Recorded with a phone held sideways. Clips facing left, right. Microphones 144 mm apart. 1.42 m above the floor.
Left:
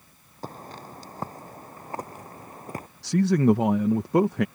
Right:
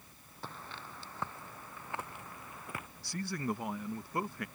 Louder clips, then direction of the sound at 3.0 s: Left 17 dB; 80° left.